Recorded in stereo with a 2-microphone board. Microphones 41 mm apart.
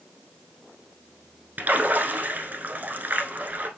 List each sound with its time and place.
1.6 s a splash: 45° right (ahead or behind), 0.9 m